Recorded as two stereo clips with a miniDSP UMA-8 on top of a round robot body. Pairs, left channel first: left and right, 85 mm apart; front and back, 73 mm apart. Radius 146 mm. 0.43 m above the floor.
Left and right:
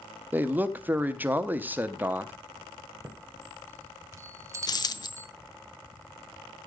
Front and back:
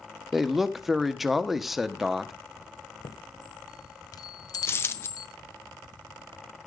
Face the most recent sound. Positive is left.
turn(degrees=55)